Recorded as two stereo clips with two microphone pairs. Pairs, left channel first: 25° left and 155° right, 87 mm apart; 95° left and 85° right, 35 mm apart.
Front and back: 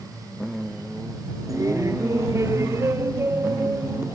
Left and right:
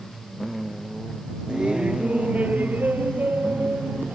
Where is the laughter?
130° right; by 4.2 s 95° right.